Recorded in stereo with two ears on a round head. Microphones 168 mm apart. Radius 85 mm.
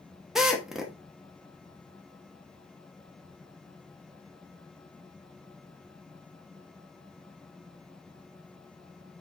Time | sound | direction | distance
0.3 | a drill | centre (ahead or behind) | 1.0 m